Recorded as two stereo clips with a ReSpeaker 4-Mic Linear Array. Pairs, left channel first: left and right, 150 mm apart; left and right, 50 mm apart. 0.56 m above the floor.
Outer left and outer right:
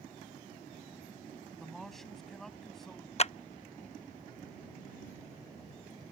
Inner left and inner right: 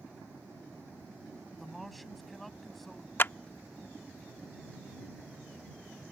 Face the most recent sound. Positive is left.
turn(degrees=45)  # may be behind; listen again after turning